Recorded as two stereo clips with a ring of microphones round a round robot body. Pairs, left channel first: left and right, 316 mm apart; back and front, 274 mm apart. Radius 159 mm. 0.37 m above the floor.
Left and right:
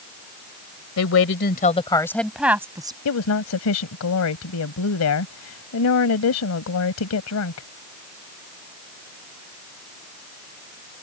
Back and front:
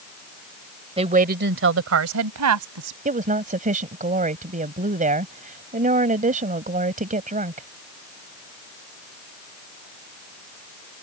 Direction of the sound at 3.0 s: 55° left.